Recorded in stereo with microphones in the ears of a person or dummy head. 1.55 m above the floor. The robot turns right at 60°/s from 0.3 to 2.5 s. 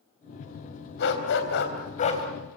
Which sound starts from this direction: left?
A dog barking, at 1.0 s.